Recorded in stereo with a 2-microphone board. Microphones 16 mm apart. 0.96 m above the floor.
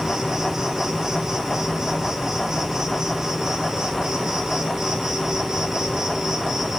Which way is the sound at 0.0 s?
40° right (ahead or behind).